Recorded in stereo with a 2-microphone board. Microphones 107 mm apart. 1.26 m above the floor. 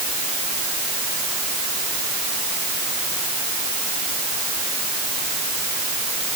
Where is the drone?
I don't hear a drone.